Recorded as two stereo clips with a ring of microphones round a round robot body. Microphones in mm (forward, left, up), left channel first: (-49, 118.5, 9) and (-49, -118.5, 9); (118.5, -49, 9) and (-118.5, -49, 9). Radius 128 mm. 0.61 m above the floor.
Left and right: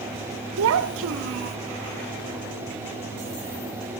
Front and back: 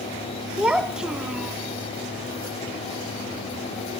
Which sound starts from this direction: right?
A child speaking, at 0.6 s.